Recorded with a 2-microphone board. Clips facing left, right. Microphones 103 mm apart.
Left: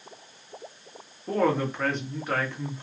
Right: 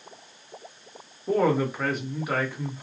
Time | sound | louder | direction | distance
1.3 | a woman speaking | right 2 dB | 10° right (ahead or behind) | 1.0 m